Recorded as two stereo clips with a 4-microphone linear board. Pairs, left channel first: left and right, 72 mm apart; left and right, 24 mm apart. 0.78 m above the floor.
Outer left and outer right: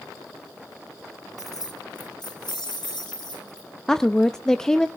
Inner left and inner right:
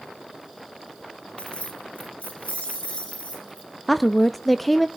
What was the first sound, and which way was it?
Keys jangling, 55° left (ahead or behind).